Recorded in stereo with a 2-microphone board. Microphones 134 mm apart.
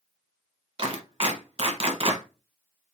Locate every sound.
0.8 s a clap: 45° right (ahead or behind), 1.3 m